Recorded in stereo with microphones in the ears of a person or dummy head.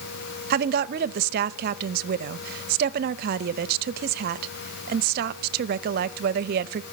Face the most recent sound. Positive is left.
turn(degrees=-60)  # may be behind; listen again after turning